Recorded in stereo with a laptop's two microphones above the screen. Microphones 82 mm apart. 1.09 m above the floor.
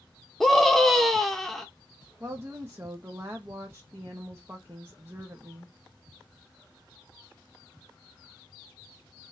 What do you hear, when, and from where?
0.4 s a scream: centre (ahead or behind), 1.0 m
2.2 s a woman speaking: 30° right (ahead or behind), 0.9 m